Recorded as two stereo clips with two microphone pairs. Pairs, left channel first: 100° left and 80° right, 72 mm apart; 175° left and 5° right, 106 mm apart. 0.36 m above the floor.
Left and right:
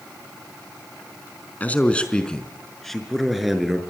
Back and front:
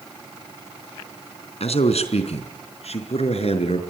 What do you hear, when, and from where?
1.6 s a man speaking: 165° left, 4 m; by 3.9 s 165° right, 6 m